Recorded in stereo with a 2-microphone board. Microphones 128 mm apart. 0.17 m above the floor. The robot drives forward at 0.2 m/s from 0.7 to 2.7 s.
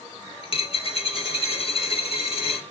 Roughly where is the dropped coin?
Left.